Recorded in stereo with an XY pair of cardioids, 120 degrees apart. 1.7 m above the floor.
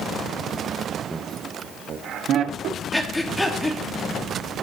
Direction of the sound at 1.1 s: 10° right.